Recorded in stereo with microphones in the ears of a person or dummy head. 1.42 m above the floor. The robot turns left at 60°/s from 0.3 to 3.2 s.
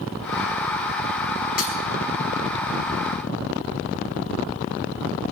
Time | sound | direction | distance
1.6 | breaking glass | 50° left (ahead or behind) | 4.5 m